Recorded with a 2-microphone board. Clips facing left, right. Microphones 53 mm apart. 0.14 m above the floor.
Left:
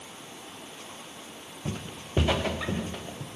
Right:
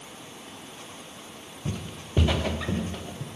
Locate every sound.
1.6 s footsteps: 15° left (ahead or behind), 0.9 m; by 3.3 s 5° left (ahead or behind), 2.0 m